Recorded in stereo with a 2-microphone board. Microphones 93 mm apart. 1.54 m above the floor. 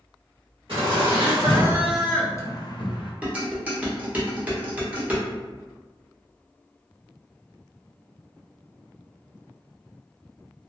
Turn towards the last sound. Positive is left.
turn(degrees=-15)  # may be behind; listen again after turning